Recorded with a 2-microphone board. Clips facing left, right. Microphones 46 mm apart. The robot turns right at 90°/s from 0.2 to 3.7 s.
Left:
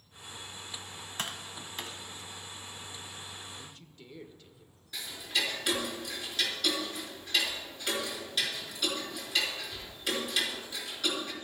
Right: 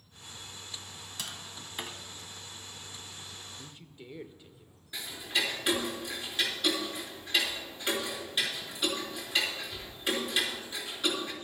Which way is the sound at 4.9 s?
15° right (ahead or behind).